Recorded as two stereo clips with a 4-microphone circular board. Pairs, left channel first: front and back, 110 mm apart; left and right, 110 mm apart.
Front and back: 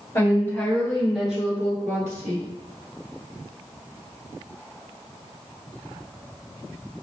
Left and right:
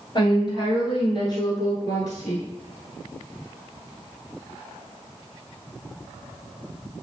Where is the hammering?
I don't hear hammering.